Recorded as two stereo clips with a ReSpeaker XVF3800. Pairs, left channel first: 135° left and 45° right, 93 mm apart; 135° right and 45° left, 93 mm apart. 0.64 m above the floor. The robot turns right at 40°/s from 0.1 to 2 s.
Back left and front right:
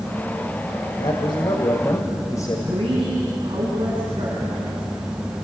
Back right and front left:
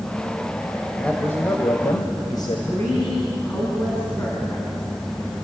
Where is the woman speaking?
70° right, 6 m.